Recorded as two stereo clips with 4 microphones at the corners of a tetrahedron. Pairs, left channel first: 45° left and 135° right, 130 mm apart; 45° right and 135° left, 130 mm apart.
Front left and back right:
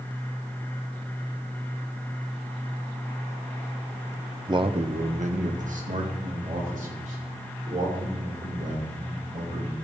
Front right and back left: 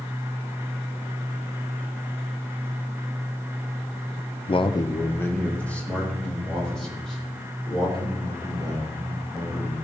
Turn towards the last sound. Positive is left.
turn(degrees=-135)